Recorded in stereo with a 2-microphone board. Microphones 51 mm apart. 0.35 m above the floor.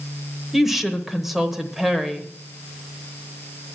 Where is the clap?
I don't hear a clap.